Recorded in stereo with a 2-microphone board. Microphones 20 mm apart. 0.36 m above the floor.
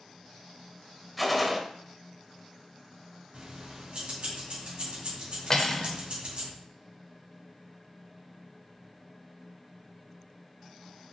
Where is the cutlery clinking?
25° left (ahead or behind), 0.6 m.